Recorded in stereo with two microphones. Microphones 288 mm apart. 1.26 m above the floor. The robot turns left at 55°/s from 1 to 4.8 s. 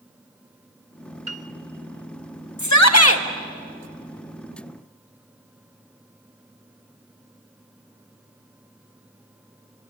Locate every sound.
1.3 s a piano: 60° right (ahead or behind), 1.0 m; by 1.5 s 55° right (ahead or behind), 1.0 m
2.6 s a shout: 80° left, 1.7 m; by 3.2 s 45° left, 1.7 m